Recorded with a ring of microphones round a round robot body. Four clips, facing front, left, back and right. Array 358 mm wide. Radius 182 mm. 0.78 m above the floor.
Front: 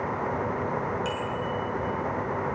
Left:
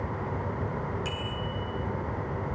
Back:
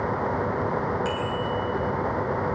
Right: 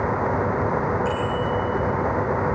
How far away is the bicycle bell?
About 9 m.